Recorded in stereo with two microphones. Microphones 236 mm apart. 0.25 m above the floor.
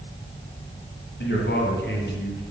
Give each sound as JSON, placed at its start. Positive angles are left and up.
{"t": 1.2, "sound": "a man speaking", "side_deg": 50, "distance_m": 2.5}